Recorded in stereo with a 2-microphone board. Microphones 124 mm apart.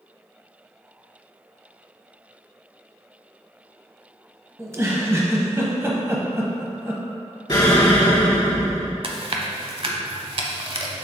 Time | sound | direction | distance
4.6 | a giggle | 25° right (ahead or behind) | 0.9 m
7.5 | an explosion | 35° left (ahead or behind) | 1.4 m
9.0 | chewing | 50° right (ahead or behind) | 0.7 m